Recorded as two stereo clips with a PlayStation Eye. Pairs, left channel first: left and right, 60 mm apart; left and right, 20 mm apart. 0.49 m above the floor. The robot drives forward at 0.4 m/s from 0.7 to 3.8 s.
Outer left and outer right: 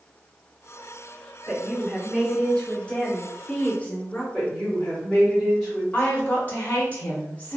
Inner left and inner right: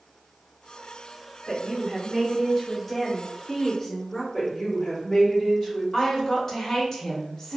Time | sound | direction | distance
1.5 | a woman speaking | 15° left (ahead or behind) | 1.4 m
4.3 | a woman speaking | centre (ahead or behind) | 1.1 m
5.9 | a woman speaking | 20° left (ahead or behind) | 0.8 m